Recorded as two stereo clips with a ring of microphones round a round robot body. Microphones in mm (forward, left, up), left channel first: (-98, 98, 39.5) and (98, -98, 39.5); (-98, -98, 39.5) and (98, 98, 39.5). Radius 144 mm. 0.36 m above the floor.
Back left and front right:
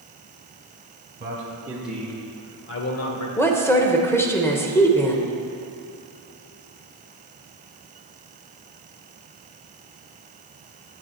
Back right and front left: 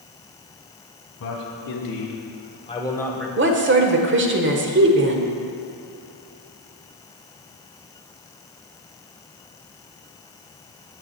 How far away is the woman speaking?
About 1.1 m.